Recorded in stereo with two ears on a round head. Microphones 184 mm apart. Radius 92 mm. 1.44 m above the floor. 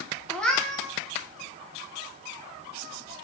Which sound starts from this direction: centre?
A cat meowing, at 0.3 s.